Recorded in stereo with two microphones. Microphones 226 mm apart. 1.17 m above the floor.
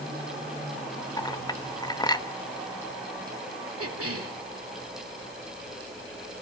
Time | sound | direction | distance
1.2 | a clink | 15° left (ahead or behind) | 0.9 m
3.8 | a cough | 80° right | 3.5 m